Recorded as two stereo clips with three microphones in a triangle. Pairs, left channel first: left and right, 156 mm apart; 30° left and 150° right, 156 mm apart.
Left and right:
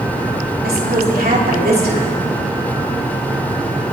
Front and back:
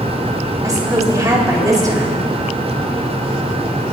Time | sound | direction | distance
0.6 | a woman speaking | 80° right | 3 m